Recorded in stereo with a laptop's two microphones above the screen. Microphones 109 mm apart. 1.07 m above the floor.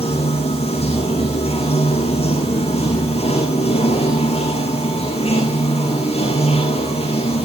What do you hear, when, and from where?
0.0 s running water: 70° left (ahead or behind), 7 m